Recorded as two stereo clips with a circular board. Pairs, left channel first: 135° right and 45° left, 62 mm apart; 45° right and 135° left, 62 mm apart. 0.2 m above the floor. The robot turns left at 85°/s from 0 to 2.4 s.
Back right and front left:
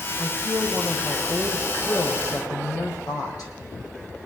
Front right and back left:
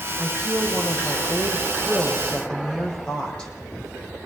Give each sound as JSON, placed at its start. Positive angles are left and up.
{"t": 0.2, "sound": "a woman speaking", "azimuth_deg": 65, "distance_m": 8.5}